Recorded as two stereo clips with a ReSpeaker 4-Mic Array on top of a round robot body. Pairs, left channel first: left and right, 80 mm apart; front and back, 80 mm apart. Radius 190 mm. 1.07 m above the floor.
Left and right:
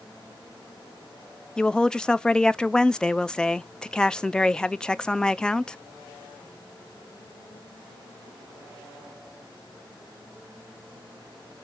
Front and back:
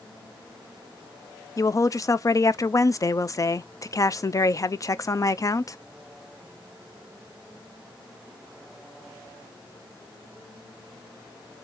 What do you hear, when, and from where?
1.6 s a woman speaking: 15° left, 0.6 m